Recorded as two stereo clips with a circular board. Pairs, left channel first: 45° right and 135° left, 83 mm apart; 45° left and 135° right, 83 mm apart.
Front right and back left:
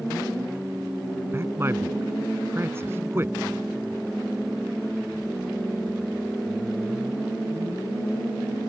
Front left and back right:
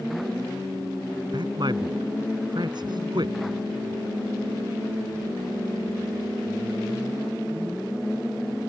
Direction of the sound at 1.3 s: 165° right.